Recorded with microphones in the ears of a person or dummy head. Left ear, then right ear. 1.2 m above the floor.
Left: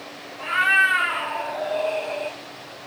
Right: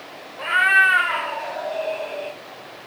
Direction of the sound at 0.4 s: 40° right (ahead or behind).